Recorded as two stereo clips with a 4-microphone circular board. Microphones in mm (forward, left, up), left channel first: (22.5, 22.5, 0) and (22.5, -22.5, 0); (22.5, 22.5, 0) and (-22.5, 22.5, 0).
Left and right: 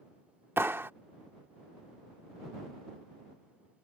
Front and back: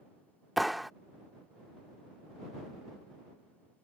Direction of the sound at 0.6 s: 90° right.